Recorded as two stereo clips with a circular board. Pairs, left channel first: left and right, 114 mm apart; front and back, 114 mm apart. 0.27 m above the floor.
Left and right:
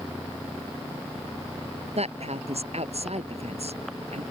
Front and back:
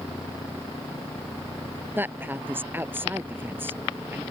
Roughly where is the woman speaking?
Right.